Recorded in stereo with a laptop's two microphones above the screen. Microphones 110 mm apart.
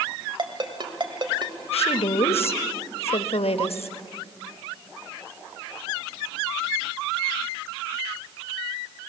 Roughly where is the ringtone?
Right.